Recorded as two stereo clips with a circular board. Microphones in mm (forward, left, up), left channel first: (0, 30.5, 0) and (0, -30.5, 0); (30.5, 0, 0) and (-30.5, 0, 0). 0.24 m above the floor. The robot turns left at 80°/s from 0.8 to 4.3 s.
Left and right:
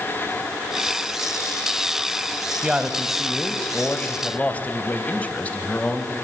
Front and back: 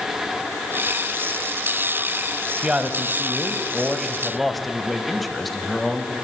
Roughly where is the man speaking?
Behind right.